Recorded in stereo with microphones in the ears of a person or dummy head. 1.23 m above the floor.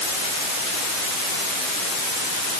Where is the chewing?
No chewing in this recording.